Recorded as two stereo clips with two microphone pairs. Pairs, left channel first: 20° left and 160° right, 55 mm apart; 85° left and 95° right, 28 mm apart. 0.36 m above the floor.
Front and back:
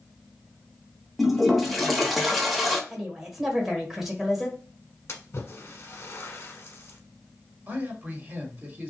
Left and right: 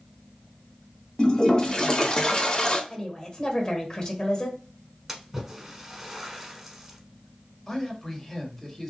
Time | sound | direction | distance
1.2 | a toilet flushing | 105° left | 0.8 m
2.9 | a woman speaking | 120° left | 1.2 m
5.1 | a splash | 20° right | 0.9 m
7.7 | a man speaking | 165° left | 1.3 m